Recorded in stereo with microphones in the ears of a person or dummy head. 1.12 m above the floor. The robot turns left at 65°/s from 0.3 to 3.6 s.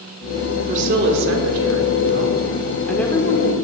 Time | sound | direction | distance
0.7 | a woman speaking | 40° right | 1.1 m